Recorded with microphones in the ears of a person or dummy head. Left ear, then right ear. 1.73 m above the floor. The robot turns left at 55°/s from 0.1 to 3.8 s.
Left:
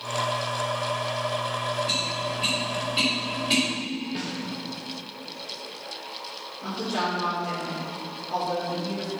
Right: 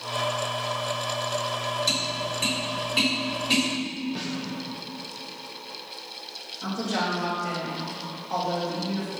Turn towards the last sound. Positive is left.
turn(degrees=-80)